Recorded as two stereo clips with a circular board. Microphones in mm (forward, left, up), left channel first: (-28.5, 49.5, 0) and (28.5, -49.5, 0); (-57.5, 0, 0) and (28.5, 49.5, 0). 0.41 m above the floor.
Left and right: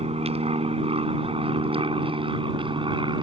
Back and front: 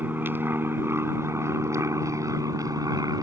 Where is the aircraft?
40° right; by 3.2 s 20° right.